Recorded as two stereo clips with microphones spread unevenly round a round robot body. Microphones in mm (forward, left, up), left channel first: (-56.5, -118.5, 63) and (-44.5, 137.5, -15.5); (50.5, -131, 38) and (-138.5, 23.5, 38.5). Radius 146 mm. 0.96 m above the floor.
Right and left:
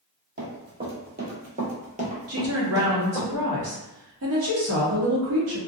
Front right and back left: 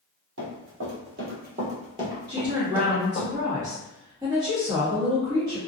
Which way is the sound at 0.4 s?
145° left.